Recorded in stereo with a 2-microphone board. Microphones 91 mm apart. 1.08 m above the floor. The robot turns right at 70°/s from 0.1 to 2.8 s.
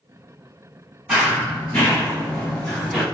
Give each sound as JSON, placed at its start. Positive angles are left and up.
{"t": 1.1, "sound": "running footsteps", "side_deg": -10, "distance_m": 1.6}